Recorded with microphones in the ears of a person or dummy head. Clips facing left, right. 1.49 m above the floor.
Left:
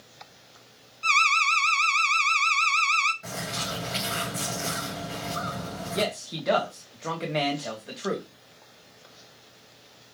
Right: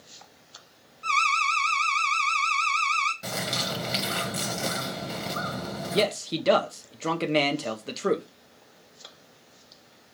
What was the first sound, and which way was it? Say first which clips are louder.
An alarm: even; 25° left (ahead or behind).